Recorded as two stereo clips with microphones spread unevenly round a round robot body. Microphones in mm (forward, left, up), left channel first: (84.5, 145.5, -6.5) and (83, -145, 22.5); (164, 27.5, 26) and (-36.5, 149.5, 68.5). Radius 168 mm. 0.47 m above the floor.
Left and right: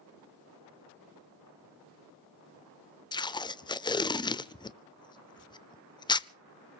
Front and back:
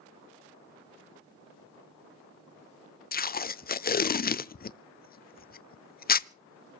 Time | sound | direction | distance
3.1 | tape being pulled | 15° left | 0.6 m